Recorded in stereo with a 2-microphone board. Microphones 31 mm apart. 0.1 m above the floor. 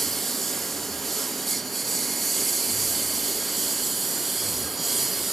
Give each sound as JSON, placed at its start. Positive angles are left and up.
{"t": 0.0, "sound": "a lawn mower", "side_deg": 5}